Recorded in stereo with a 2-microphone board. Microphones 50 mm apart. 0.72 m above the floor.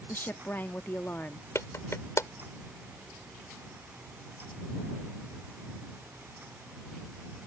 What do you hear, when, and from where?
0.1 s a woman speaking: 40° left (ahead or behind)
1.6 s a clap: 65° left (ahead or behind)